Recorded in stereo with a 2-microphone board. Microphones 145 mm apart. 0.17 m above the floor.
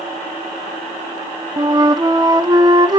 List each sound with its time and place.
1.6 s a flute: 30° right (ahead or behind), 0.5 m